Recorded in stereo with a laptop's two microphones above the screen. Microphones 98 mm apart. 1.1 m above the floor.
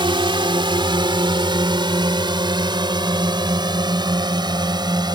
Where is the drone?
55° right (ahead or behind); by 5.2 s 45° right (ahead or behind).